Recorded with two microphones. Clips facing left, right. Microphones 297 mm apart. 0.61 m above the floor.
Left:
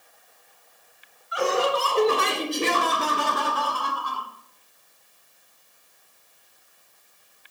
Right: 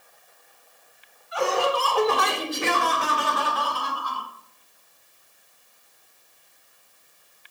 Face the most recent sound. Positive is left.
turn(degrees=60)  # may be behind; listen again after turning